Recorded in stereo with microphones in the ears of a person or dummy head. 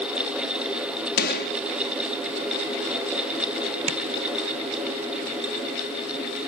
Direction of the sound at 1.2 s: 60° left (ahead or behind).